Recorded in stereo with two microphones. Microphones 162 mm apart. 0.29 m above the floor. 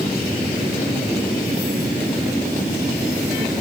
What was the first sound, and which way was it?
Only background noise.